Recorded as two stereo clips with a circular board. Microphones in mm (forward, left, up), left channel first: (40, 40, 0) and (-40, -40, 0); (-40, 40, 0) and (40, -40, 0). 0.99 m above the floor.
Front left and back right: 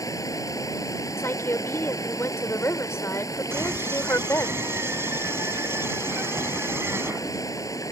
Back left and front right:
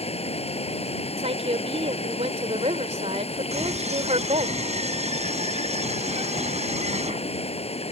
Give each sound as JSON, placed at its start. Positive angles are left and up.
{"t": 0.0, "sound": "running water", "azimuth_deg": 105}
{"t": 1.2, "sound": "a woman speaking", "azimuth_deg": -25}
{"t": 3.5, "sound": "a scream", "azimuth_deg": -65}